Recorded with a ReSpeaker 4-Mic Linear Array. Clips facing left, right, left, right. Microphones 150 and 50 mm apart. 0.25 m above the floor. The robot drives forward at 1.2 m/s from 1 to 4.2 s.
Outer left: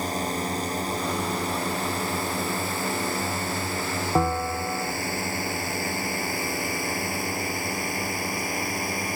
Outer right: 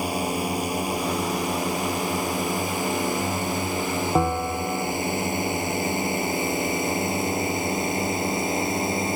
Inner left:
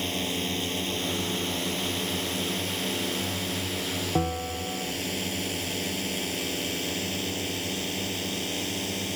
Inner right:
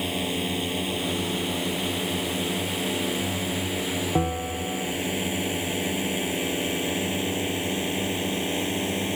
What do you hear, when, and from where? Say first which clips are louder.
0.0 s a drone: outer right 2 dB, inner right 2 dB; 10° right (ahead or behind); by 9.2 s 25° right (ahead or behind)
4.2 s a bell: even, inner right 1 dB; 5° right (ahead or behind)